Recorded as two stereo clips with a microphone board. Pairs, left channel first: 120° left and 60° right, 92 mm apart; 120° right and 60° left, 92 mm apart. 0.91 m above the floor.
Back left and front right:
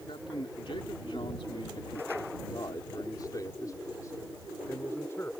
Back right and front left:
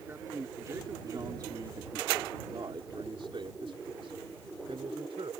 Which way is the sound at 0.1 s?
120° left.